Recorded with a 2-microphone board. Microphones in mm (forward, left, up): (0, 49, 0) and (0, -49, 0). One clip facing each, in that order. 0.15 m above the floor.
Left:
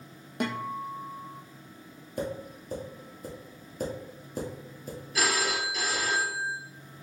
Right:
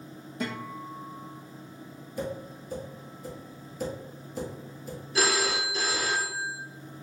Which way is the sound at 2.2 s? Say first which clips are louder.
Left 1 dB; 50° left (ahead or behind).